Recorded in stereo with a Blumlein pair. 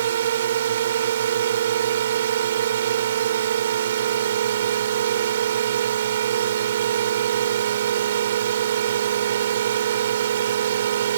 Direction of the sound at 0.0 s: 60° right.